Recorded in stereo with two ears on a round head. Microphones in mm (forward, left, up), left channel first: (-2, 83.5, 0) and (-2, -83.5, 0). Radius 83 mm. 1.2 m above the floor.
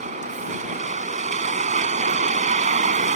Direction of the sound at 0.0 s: 40° right (ahead or behind).